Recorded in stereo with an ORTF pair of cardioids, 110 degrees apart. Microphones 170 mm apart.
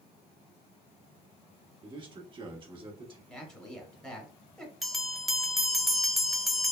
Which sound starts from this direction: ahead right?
A man speaking, at 1.8 s.